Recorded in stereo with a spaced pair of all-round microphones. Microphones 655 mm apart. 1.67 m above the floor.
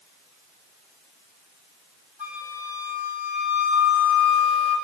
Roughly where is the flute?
Left.